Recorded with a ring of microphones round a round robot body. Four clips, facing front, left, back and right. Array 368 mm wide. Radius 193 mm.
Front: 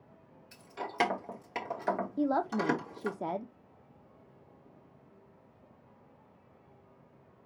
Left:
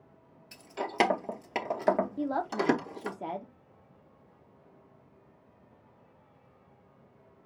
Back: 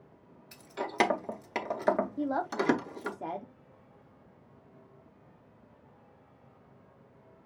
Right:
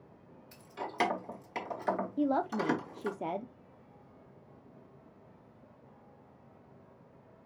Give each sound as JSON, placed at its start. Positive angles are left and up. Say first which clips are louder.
{"t": 0.5, "sound": "keys jangling", "louder": "left 6 dB, back 4 dB", "azimuth_deg": 130, "distance_m": 0.8}
{"t": 2.2, "sound": "a woman speaking", "louder": "right 1 dB, front 1 dB", "azimuth_deg": -35, "distance_m": 0.7}